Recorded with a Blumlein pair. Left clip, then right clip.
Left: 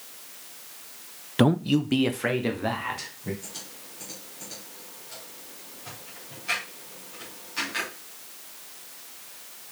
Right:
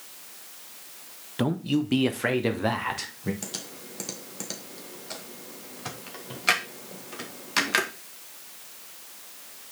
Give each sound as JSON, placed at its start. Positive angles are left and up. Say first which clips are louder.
{"t": 1.4, "sound": "a man speaking", "louder": "left 4 dB", "azimuth_deg": 20, "distance_m": 0.6}
{"t": 3.4, "sound": "typing on a keyboard", "louder": "right 4 dB", "azimuth_deg": -40, "distance_m": 1.9}